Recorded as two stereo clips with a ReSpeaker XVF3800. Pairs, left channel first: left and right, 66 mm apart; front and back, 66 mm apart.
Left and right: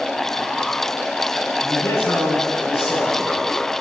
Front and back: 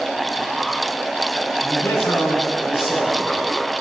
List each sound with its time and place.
1.6 s a man speaking: 45° left, 7.5 m